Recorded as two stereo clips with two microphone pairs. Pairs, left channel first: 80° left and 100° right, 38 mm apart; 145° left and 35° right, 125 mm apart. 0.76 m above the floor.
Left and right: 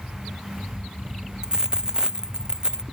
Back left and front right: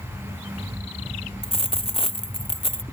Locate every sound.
1.4 s a dropped coin: 170° right